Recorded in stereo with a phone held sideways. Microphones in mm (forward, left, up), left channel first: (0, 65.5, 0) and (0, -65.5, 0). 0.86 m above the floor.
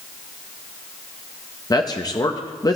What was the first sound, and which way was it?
A man speaking, 30° left (ahead or behind).